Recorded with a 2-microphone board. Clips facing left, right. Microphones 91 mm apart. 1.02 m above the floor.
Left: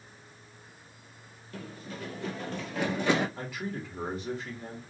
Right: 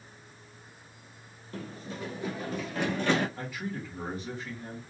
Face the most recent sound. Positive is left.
turn(degrees=30)  # may be behind; listen again after turning